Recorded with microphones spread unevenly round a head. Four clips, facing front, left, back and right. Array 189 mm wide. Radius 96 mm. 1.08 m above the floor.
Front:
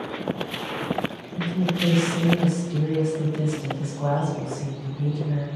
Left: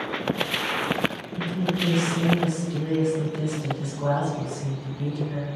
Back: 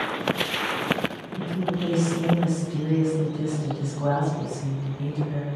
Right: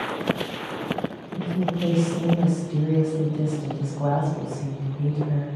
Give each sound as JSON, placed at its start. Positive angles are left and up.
{"t": 1.4, "sound": "a woman speaking", "azimuth_deg": -70, "distance_m": 1.6}